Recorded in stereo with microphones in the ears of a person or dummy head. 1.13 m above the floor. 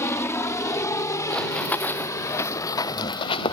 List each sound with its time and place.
0.0 s a helicopter: 10° left (ahead or behind); by 3.5 s 20° left (ahead or behind)
1.3 s running footsteps: 5° left (ahead or behind); by 3.5 s 35° left (ahead or behind)